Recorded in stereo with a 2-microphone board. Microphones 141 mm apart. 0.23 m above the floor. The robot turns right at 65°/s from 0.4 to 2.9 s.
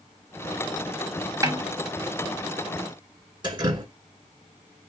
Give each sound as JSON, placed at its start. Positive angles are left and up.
{"t": 1.4, "sound": "a snare drum", "side_deg": -25, "distance_m": 1.0}
{"t": 3.4, "sound": "dripping", "side_deg": -35, "distance_m": 1.5}